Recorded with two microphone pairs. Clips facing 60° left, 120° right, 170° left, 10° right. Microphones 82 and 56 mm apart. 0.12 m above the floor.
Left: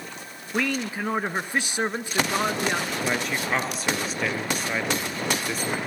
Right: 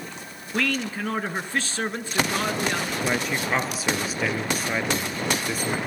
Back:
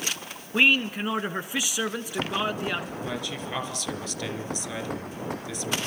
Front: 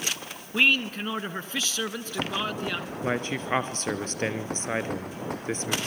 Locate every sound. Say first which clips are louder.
0.5 s a man speaking: even, back 2 dB; 110° left, 1.1 m
3.0 s a man speaking: right 1 dB, front 4 dB; 35° right, 1.6 m